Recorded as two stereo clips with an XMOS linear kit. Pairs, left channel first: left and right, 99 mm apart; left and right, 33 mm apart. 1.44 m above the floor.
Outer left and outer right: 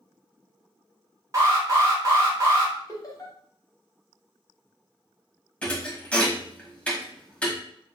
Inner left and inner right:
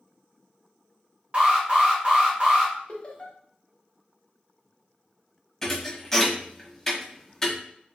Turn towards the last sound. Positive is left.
turn(degrees=10)  # may be behind; listen again after turning